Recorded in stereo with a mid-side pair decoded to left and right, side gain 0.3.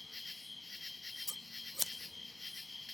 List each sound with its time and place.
0.0 s an insect: 35° left, 0.7 m
1.3 s scissors: 5° left, 1.0 m